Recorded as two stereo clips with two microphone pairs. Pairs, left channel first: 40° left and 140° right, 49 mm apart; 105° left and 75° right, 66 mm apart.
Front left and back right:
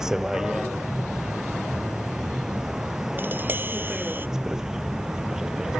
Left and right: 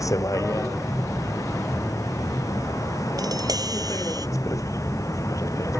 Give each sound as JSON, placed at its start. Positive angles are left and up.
{"t": 0.0, "sound": "a vehicle", "azimuth_deg": 140}
{"t": 3.2, "sound": "tapping", "azimuth_deg": -95}